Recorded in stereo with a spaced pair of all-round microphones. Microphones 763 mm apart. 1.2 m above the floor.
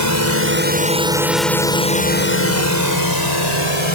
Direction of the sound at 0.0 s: 20° right (ahead or behind).